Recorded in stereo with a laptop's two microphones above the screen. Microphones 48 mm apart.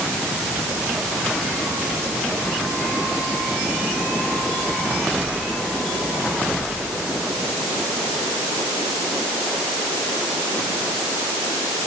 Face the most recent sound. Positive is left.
No sound to turn to.